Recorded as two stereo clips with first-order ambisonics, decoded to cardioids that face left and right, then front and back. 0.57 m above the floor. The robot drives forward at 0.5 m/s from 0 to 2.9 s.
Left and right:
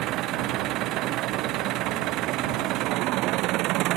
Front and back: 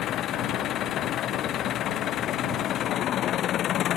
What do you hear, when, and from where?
0.0 s an engine running: 50° right; by 4.0 s 55° right